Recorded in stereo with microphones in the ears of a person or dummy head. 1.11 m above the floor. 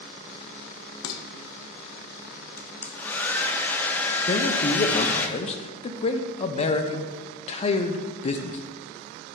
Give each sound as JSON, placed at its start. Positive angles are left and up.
{"t": 1.0, "sound": "dishes clattering", "side_deg": 85, "distance_m": 0.7}
{"t": 2.6, "sound": "a hair dryer", "side_deg": 5, "distance_m": 0.5}
{"t": 4.3, "sound": "a man speaking", "side_deg": 35, "distance_m": 0.5}